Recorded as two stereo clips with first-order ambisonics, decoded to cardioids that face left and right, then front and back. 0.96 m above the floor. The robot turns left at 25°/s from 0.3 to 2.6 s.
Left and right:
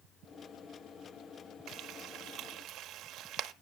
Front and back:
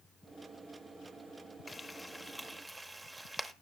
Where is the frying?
70° right, 0.8 m; by 3.5 s 95° right, 0.8 m.